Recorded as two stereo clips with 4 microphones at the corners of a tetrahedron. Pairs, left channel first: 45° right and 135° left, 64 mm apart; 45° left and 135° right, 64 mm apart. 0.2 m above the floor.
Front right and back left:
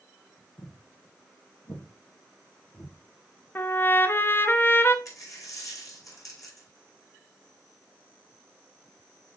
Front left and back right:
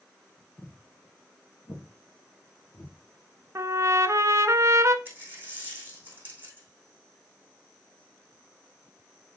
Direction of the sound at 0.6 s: 15° right.